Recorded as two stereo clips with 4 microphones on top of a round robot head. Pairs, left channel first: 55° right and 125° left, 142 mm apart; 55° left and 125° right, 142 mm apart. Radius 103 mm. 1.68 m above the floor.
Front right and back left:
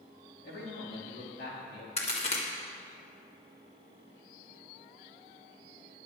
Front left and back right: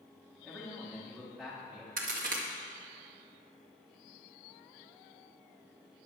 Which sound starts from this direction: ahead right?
A man speaking, at 0.4 s.